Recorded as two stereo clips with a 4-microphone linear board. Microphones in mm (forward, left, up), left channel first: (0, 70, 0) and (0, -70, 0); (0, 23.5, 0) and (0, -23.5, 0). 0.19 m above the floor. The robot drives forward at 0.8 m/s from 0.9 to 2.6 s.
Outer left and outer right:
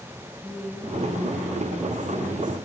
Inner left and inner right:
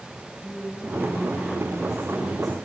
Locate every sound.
0.4 s a woman speaking: 5° right (ahead or behind), 5.5 m